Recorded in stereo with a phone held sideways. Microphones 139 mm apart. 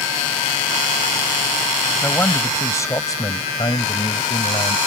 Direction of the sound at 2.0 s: 15° left (ahead or behind).